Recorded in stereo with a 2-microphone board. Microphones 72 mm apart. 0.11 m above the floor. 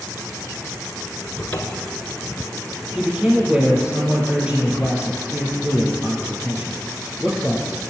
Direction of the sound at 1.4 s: 20° left (ahead or behind).